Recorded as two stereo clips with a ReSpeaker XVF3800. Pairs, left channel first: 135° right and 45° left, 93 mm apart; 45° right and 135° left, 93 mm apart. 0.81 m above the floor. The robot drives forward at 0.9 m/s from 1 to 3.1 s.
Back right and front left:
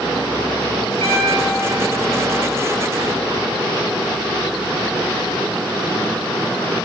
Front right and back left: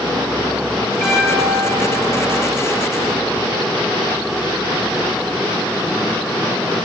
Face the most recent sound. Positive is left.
turn(degrees=50)